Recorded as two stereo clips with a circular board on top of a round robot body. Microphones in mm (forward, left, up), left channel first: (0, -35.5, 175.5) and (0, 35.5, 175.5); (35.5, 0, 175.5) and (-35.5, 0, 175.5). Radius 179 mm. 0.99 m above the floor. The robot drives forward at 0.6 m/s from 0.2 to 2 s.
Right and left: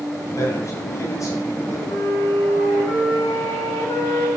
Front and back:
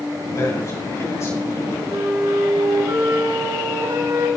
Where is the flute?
135° right, 5 m.